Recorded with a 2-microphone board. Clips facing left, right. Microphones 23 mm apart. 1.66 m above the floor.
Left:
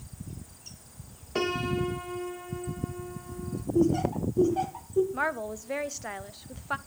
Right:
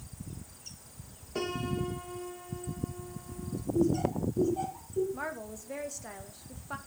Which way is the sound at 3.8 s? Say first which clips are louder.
Left 3 dB; 55° left (ahead or behind).